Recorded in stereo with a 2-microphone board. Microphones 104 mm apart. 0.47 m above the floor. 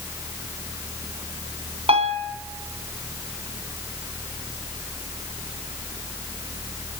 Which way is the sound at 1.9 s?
75° right (ahead or behind).